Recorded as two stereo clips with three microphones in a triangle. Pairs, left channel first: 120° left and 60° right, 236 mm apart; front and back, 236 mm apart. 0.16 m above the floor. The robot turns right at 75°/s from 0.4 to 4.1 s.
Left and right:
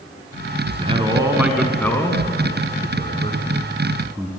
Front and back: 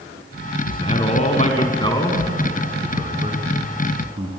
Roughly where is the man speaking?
Ahead right.